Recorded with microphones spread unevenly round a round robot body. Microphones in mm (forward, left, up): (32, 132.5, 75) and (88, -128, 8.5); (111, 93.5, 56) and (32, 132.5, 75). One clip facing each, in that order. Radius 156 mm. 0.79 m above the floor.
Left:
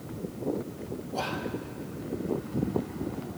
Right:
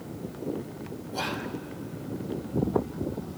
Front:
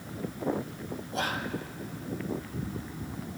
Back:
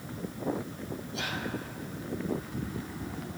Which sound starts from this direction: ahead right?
Whispering, at 1.1 s.